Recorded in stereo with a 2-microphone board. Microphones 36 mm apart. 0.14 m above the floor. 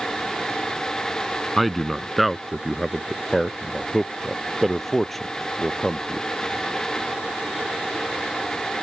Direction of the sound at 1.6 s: Centre (ahead or behind).